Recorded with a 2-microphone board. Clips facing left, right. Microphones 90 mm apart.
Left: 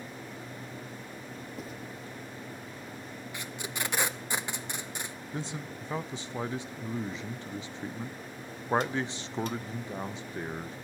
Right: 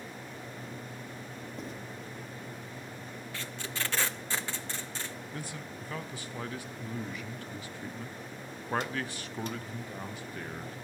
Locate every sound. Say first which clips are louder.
1.6 s writing: right 1 dB; 5° left (ahead or behind), 3 m
3.3 s tape being pulled: left 1 dB; 15° left (ahead or behind), 0.5 m
5.3 s a man speaking: left 3 dB; 25° left (ahead or behind), 0.6 m